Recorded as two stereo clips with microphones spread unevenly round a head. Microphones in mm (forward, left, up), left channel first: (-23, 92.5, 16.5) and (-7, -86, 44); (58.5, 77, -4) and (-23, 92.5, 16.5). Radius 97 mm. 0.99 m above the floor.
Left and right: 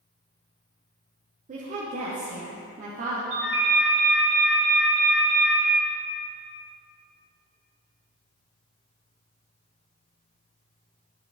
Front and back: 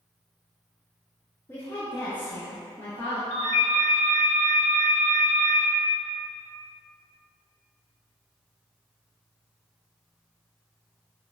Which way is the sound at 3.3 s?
55° right.